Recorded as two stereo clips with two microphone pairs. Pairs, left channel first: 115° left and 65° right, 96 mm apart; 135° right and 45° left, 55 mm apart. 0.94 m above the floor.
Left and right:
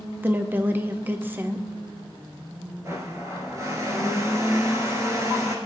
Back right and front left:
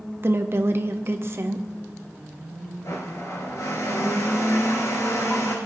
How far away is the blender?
About 2.5 m.